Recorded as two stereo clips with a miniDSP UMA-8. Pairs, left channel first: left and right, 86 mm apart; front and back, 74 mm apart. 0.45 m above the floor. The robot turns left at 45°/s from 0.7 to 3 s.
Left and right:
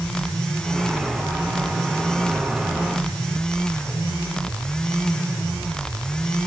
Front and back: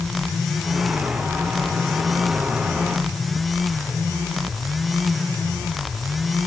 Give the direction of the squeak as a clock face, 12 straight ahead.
I don't hear a squeak.